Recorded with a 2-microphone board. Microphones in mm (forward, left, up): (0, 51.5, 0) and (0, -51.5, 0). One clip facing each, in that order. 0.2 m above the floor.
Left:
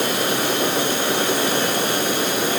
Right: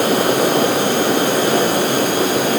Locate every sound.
Only background noise.